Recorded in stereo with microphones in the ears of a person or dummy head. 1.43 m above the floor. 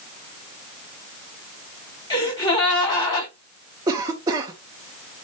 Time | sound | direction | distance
2.1 | a gasp | 20° left (ahead or behind) | 2.5 m
3.9 | a cough | 25° right (ahead or behind) | 0.9 m